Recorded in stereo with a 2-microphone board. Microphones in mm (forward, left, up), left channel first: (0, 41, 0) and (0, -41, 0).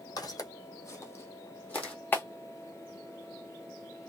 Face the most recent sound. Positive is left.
turn(degrees=25)  # may be behind; listen again after turning